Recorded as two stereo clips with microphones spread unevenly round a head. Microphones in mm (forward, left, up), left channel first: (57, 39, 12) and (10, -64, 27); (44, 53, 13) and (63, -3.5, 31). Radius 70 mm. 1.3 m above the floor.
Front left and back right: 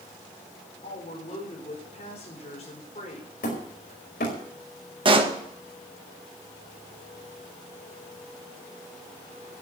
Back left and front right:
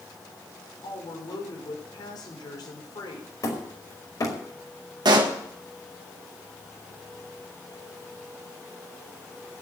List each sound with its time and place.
0.8 s a woman speaking: 110° left, 5 m
3.4 s hammering: 80° left, 5 m
5.0 s a pop: 70° right, 1.9 m